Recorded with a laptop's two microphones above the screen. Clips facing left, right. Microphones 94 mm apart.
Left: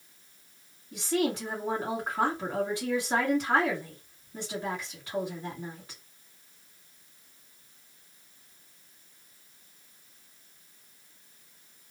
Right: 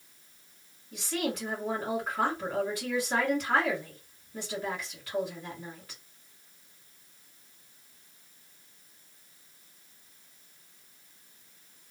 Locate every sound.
0.9 s a woman speaking: 25° left (ahead or behind), 1.9 m